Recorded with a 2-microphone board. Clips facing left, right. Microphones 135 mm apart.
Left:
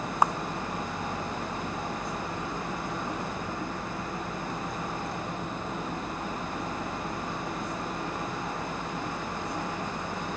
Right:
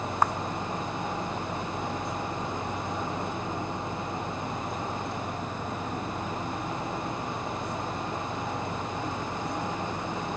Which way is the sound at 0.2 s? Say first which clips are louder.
Left 1 dB; 10° left (ahead or behind).